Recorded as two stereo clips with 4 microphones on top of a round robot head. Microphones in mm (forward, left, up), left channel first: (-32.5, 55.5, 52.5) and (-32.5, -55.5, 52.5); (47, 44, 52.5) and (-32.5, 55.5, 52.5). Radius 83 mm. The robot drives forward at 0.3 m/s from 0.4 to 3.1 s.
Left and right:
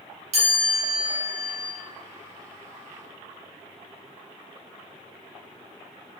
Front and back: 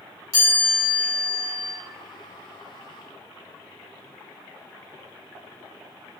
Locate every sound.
0.3 s a chime: 65° right, 1.4 m; by 1.7 s 80° right, 1.3 m